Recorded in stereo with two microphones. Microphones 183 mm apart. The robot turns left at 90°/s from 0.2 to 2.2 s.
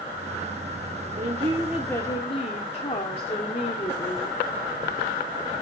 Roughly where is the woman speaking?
Behind right.